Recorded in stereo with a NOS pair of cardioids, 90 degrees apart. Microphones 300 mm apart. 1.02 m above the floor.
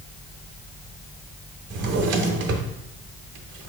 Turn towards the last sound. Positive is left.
turn(degrees=-55)